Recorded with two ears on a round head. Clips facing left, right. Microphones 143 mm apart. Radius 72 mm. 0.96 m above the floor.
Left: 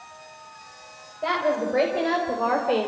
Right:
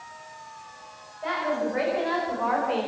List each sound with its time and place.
1.2 s a woman speaking: 45° left (ahead or behind), 5 m; by 2.9 s 40° left (ahead or behind), 3.5 m